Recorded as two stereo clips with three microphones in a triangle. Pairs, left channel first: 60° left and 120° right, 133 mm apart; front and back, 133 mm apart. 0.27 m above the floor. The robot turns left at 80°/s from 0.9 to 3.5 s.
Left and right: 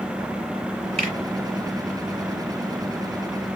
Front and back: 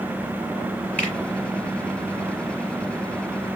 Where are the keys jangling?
I don't hear keys jangling.